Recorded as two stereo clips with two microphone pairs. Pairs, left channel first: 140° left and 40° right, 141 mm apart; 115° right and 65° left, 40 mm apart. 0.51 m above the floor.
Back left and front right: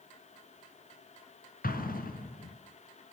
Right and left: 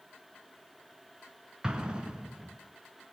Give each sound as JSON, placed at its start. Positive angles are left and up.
{"t": 1.6, "sound": "an explosion", "azimuth_deg": 135, "distance_m": 3.0}